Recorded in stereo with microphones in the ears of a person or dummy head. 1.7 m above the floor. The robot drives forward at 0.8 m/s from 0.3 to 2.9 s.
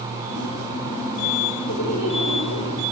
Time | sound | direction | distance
1.7 | laughter | 75° left (ahead or behind) | 7 m